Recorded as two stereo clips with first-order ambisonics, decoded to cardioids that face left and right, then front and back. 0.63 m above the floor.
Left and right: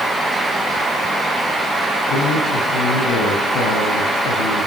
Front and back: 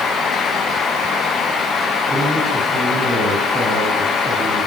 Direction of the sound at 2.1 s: 100° left.